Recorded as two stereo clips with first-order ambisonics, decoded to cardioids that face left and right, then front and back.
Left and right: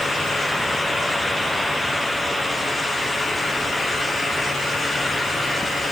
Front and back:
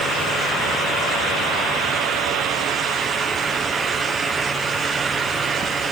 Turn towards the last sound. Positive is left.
No sound to turn to.